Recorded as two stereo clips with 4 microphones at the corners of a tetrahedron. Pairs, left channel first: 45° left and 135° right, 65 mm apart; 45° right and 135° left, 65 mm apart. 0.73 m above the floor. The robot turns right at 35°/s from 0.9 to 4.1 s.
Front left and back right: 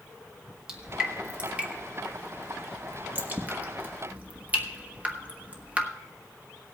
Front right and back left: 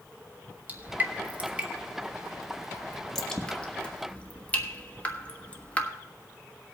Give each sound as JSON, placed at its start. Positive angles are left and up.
{"t": 0.7, "sound": "dripping", "azimuth_deg": 155, "distance_m": 1.2}